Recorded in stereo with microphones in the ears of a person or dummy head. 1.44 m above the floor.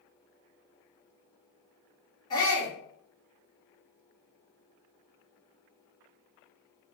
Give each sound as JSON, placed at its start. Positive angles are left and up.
{"t": 2.3, "sound": "a shout", "side_deg": 20, "distance_m": 1.3}